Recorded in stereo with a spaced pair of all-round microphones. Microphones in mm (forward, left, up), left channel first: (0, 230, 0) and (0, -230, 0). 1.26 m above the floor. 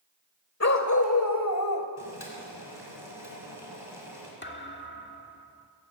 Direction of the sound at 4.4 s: 25° left (ahead or behind).